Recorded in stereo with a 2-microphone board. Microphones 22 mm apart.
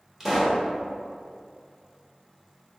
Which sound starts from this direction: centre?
A pop, at 0.2 s.